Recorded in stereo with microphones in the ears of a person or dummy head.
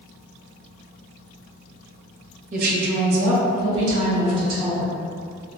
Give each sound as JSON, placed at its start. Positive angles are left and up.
{"t": 2.5, "sound": "a woman speaking", "side_deg": -40, "distance_m": 0.6}